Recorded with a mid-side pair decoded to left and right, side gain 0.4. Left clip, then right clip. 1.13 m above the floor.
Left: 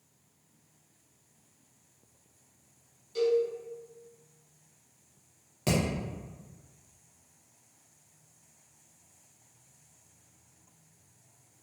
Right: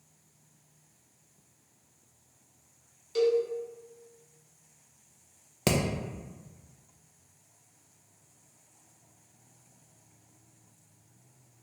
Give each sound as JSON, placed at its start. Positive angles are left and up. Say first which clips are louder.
{"t": 3.1, "sound": "a cowbell", "louder": "right 1 dB", "azimuth_deg": -60, "distance_m": 1.2}
{"t": 5.7, "sound": "hammering", "louder": "right 2 dB", "azimuth_deg": -65, "distance_m": 0.8}